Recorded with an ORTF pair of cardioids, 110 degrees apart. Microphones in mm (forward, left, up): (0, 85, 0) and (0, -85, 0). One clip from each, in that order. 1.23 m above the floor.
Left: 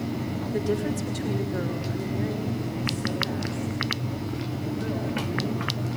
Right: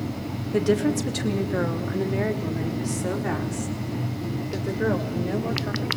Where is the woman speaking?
30° right, 2 m; by 6.0 s 75° right, 6.5 m.